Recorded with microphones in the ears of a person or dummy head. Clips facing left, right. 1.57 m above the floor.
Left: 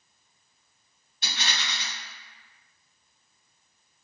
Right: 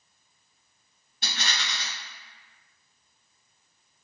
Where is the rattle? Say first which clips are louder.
Even; 40° right (ahead or behind), 1.8 m.